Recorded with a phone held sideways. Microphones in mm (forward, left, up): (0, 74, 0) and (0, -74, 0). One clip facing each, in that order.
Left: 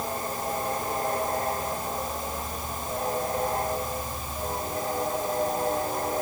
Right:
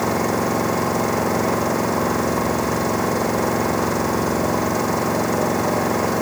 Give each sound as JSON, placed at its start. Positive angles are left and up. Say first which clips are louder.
{"t": 0.0, "sound": "an engine running", "louder": "right 11 dB", "side_deg": -85}